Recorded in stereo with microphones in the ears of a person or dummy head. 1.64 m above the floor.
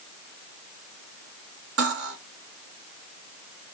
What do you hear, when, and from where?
1.8 s cutlery clinking: 50° right (ahead or behind), 1.2 m